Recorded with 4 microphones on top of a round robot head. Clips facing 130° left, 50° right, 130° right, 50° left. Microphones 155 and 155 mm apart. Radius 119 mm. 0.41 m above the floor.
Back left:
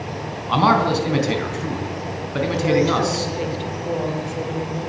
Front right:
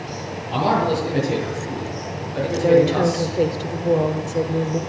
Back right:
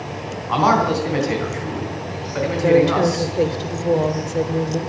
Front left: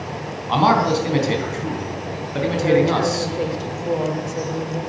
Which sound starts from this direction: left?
A man speaking, at 0.5 s.